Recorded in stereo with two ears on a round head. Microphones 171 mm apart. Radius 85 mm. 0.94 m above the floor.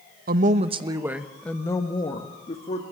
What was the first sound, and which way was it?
A woman speaking, 50° right (ahead or behind).